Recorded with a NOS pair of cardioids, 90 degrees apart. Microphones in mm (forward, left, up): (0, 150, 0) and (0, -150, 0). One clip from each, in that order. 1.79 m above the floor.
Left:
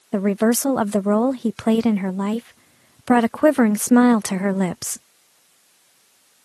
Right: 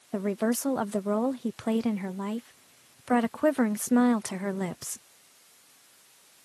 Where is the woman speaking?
45° left.